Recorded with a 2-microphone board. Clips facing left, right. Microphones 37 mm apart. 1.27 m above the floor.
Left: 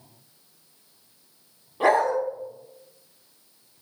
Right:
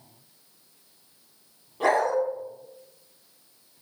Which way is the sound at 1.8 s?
20° left (ahead or behind).